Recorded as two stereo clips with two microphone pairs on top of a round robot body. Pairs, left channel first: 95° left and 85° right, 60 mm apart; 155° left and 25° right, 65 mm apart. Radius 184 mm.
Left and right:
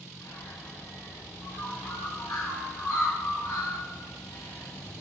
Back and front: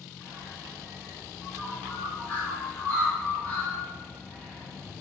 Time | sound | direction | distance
0.2 | a bird | 90° left | 2.5 m